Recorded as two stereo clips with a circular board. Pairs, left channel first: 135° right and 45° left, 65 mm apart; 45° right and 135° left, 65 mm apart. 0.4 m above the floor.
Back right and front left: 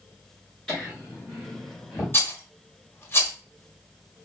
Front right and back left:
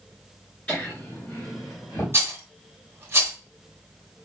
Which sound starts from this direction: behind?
A rattle, at 2.1 s.